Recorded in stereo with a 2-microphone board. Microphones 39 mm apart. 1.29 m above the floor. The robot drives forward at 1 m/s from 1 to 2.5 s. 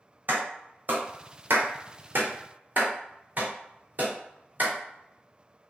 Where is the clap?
55° right (ahead or behind), 1.1 m; by 4.7 s 45° right (ahead or behind), 1.2 m.